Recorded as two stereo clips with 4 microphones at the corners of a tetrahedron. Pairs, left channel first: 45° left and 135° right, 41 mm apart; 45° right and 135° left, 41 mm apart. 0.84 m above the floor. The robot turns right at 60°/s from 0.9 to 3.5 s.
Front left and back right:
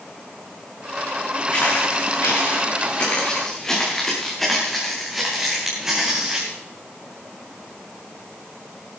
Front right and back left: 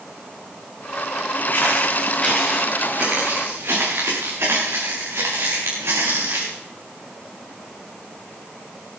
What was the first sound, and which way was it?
Footsteps, 15° right.